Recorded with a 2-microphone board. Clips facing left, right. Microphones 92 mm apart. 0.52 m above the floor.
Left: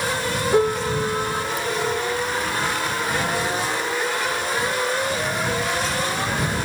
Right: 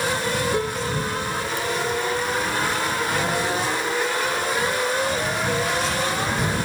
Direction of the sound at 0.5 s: 40° left (ahead or behind).